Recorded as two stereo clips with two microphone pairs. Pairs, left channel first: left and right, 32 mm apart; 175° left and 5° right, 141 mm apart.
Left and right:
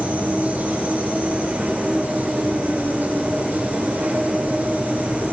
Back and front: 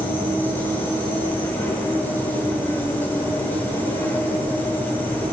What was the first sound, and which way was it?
An insect, 110° right.